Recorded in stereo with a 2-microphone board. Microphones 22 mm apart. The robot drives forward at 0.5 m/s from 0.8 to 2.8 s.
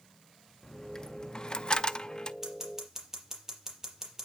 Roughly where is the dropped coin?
Left.